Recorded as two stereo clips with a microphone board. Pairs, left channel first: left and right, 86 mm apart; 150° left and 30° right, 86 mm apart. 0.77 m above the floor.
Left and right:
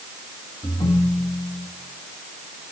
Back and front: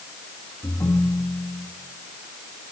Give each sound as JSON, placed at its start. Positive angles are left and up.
{"t": 0.6, "sound": "a ringtone", "azimuth_deg": 100, "distance_m": 2.5}